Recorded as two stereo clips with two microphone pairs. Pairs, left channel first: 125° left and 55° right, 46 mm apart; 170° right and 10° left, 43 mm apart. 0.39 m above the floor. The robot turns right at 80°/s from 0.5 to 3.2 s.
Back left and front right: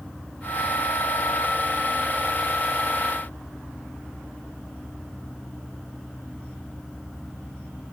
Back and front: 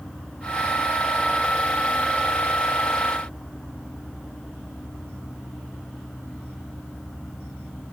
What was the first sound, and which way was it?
Only background noise.